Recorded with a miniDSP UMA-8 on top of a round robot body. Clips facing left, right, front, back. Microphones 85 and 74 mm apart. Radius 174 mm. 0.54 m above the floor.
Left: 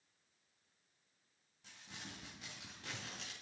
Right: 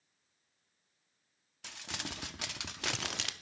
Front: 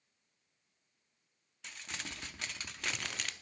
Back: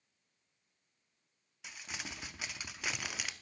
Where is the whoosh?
No whoosh in this recording.